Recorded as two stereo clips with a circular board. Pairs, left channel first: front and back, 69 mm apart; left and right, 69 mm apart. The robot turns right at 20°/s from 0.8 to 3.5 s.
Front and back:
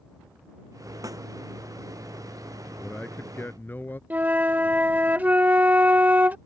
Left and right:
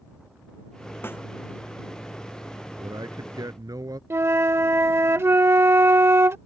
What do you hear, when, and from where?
1.0 s a snare drum: 145° left; by 1.2 s 150° left
2.8 s a man speaking: 75° right; by 4.0 s 60° right
4.1 s a flute: 125° right